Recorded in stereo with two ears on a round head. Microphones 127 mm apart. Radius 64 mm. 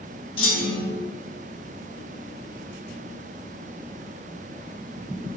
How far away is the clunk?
About 2 m.